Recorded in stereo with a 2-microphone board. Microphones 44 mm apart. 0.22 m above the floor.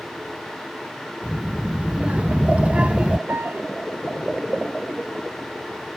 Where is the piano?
55° right (ahead or behind).